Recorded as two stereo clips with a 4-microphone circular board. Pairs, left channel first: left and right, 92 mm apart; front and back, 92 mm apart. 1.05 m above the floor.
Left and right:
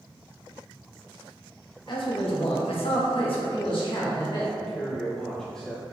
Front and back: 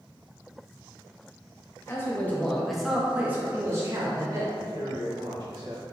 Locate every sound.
1.9 s a man speaking: 60° left, 1.1 m; by 4.4 s 130° left, 1.5 m
4.5 s a man speaking: 170° left, 1.0 m